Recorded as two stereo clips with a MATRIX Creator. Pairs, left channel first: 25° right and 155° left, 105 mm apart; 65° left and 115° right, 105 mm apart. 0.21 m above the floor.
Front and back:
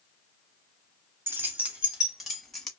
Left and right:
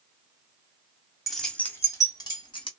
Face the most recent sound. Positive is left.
turn(degrees=60)